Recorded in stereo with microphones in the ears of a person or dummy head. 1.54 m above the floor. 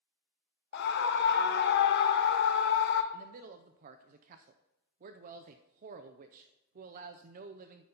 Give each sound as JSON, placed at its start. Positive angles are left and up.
{"t": 0.7, "sound": "a scream", "side_deg": 55, "distance_m": 0.9}
{"t": 3.1, "sound": "a man speaking", "side_deg": -45, "distance_m": 0.5}